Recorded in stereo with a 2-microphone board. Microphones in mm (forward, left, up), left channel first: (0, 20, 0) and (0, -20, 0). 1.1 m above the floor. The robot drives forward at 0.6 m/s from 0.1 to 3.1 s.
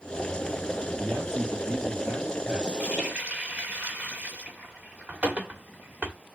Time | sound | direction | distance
1.0 | a man speaking | 35° right (ahead or behind) | 2.5 m
2.8 | a running tap | 35° right (ahead or behind) | 2 m